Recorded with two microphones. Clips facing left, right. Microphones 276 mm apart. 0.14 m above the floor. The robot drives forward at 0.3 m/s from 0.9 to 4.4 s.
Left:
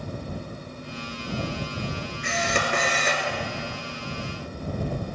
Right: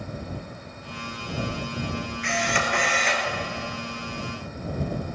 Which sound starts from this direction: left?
A camera shutter, at 2.2 s.